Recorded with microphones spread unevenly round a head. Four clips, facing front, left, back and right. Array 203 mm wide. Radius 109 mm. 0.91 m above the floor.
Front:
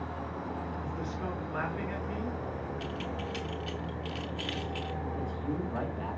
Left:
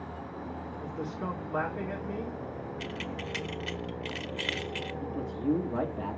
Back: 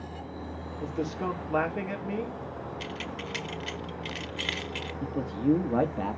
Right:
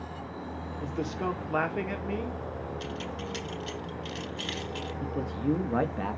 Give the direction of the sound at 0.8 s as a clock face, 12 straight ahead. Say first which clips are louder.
Right 5 dB, back 5 dB; 5 o'clock.